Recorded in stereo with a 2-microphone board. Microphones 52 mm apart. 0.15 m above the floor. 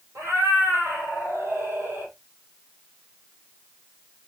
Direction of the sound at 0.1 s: 75° right (ahead or behind).